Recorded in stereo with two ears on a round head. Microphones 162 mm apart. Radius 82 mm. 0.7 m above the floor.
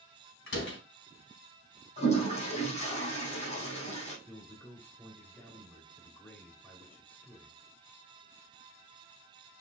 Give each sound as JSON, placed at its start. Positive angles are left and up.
{"t": 0.5, "sound": "a door slam", "side_deg": 65, "distance_m": 4.5}
{"t": 2.0, "sound": "a toilet flushing", "side_deg": 40, "distance_m": 5.5}
{"t": 4.3, "sound": "a man speaking", "side_deg": 10, "distance_m": 2.5}